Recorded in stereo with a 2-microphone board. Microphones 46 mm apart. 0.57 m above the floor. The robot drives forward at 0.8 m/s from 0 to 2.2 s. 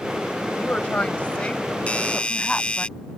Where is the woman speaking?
35° left (ahead or behind); by 2.9 s 20° left (ahead or behind).